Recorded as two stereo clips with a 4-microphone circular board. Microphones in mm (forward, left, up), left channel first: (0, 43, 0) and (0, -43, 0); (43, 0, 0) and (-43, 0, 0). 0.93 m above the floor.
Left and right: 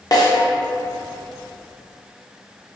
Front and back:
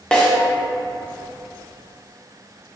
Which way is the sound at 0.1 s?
75° left.